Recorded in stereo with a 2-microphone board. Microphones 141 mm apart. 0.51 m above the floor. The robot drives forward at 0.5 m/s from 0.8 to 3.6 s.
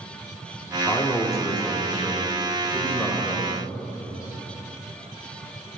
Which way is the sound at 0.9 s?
20° left (ahead or behind).